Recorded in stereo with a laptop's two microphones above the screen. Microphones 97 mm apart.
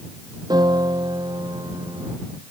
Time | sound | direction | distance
0.5 | a piano | 45° right (ahead or behind) | ?